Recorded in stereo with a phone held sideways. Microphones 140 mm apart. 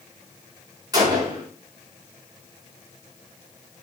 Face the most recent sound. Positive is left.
turn(degrees=-30)  # may be behind; listen again after turning